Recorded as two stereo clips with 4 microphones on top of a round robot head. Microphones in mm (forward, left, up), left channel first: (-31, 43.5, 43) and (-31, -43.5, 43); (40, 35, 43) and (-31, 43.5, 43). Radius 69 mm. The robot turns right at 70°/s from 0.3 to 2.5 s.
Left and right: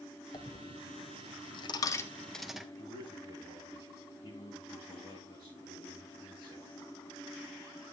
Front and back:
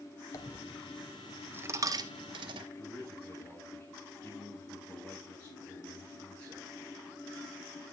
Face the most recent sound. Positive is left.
turn(degrees=60)